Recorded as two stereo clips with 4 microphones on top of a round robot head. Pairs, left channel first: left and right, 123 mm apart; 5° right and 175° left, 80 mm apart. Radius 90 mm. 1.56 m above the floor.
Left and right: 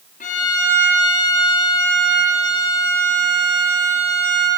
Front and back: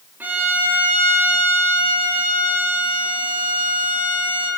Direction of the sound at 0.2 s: 110° left.